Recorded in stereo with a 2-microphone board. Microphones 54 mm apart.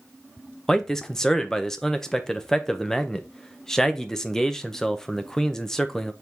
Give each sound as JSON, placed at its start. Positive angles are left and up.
{"t": 0.7, "sound": "a man speaking", "side_deg": 10, "distance_m": 0.5}